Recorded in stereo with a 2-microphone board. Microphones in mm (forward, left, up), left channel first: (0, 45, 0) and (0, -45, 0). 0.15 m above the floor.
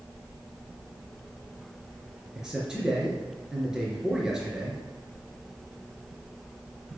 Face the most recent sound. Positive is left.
turn(degrees=-5)  # may be behind; listen again after turning